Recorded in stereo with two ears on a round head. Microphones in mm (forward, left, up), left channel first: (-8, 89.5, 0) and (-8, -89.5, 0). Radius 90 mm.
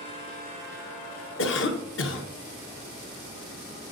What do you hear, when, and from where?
1.4 s a cough: 65° left (ahead or behind), 1.3 m